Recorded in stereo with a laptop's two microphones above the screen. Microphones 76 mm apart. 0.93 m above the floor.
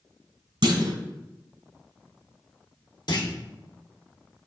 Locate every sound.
0.6 s a clunk: 75° right (ahead or behind), 2 m
3.1 s a clunk: 60° left (ahead or behind), 1.2 m